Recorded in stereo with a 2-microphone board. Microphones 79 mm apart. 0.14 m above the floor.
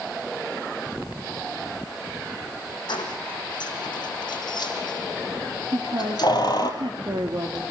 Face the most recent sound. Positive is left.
turn(degrees=-65)  # may be behind; listen again after turning